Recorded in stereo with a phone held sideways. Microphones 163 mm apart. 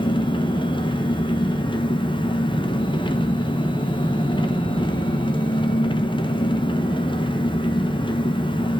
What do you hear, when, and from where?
0.0 s an engine running: 30° left (ahead or behind), 1.0 m